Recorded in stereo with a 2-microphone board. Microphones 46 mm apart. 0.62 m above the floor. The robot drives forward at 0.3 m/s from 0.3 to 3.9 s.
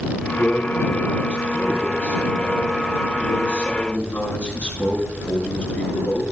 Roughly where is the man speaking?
Left.